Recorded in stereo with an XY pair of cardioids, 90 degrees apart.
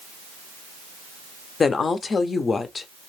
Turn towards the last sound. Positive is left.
turn(degrees=45)